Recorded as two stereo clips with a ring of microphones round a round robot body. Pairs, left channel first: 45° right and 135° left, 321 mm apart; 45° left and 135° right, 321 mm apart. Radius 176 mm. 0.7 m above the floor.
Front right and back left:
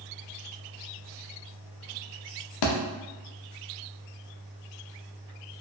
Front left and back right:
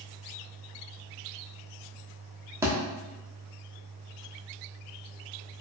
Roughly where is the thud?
Ahead right.